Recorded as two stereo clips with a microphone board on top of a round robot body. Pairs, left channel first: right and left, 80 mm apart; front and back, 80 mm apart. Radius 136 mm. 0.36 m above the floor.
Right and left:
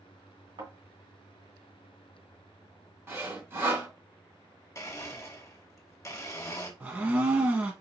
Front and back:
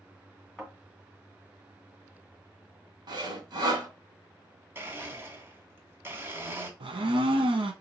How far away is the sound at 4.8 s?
About 1.6 m.